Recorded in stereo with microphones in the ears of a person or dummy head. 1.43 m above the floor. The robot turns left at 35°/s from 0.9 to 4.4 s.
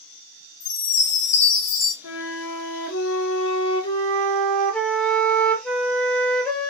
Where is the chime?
85° left, 2 m; by 1.9 s 50° left, 2 m.